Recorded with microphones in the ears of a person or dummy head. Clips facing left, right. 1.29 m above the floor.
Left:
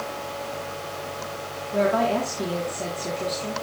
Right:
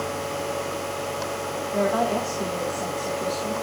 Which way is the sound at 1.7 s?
30° left (ahead or behind).